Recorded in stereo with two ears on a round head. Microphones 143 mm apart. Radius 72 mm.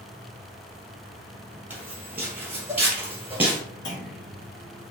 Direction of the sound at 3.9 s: 75° left (ahead or behind).